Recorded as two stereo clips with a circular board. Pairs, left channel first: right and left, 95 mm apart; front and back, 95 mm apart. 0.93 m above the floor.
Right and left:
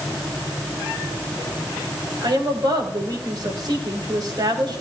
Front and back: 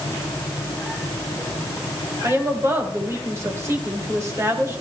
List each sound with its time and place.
2.2 s a woman speaking: 125° left, 4 m